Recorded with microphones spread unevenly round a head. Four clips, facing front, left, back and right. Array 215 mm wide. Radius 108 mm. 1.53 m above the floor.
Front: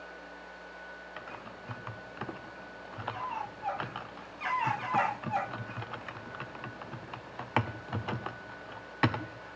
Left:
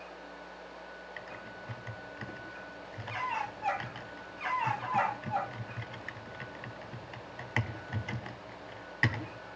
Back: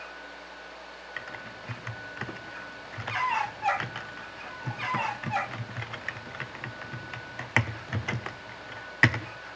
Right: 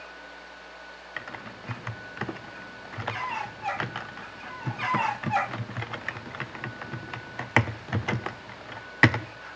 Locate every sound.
1.2 s typing on a keyboard: 100° right, 0.7 m